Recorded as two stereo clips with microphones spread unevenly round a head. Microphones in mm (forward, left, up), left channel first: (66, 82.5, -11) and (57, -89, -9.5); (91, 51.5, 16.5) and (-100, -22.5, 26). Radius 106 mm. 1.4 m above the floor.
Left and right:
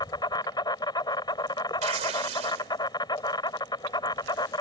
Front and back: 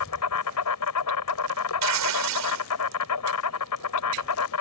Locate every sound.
0.0 s an insect: 20° left
1.8 s tearing paper: 155° right